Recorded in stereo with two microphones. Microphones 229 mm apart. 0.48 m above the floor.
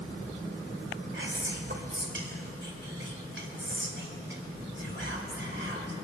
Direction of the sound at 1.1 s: 55° right (ahead or behind).